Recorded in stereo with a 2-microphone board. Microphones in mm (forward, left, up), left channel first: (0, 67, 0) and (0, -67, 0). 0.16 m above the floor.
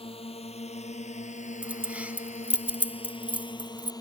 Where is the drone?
45° left (ahead or behind); by 4.0 s 30° left (ahead or behind).